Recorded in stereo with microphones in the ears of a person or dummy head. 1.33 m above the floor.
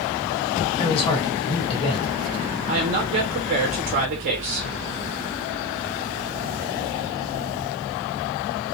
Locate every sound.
0.8 s a man speaking: 30° left (ahead or behind), 1.2 m
2.7 s a woman speaking: 35° right (ahead or behind), 0.6 m